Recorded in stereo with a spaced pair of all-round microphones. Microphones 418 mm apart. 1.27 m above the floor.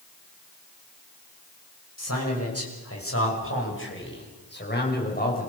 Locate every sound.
2.0 s a man speaking: 35° left (ahead or behind), 6 m; by 5.5 s 20° left (ahead or behind), 6 m